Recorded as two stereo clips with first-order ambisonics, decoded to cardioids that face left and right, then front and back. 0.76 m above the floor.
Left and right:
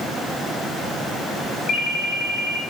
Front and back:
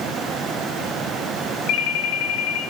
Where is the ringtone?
30° left, 3 m.